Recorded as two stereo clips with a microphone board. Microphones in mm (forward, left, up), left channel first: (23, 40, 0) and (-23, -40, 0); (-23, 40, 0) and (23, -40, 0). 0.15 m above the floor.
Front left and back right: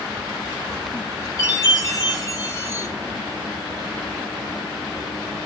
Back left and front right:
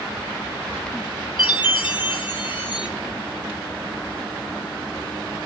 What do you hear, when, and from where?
1.4 s a chime: 100° left, 2 m